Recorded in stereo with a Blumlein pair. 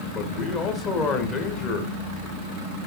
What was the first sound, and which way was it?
A man speaking, 30° left.